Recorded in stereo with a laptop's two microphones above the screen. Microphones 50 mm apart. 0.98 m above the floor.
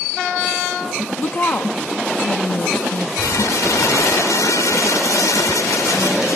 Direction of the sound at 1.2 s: 40° left (ahead or behind).